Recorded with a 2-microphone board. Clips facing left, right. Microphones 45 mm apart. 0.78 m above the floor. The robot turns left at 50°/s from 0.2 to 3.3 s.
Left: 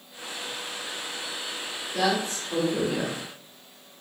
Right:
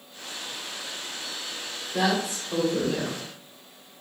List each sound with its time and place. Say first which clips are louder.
1.9 s a woman speaking: even; 150° right, 2 m; by 3.2 s 150° left, 2 m